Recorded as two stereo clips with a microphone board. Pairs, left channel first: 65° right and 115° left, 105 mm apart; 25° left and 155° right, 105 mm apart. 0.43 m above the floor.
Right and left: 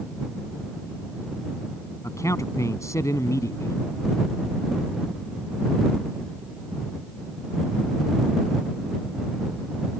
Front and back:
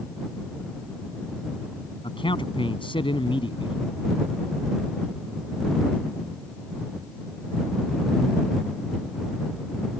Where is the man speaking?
10° right.